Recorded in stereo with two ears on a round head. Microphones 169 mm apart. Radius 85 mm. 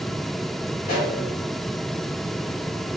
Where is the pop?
60° left (ahead or behind), 3.5 m.